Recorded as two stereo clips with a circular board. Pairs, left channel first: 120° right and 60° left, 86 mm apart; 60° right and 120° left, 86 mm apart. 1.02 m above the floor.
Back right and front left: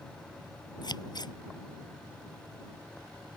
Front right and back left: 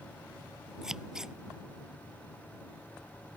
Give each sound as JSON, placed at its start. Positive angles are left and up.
{"t": 0.8, "sound": "scissors", "azimuth_deg": -155}